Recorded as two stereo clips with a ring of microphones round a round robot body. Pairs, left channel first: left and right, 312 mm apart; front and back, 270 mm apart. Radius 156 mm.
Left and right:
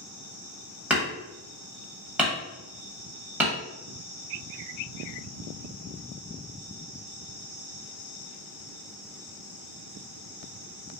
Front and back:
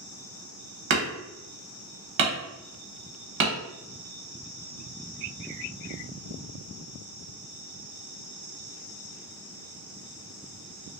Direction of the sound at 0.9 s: 175° right.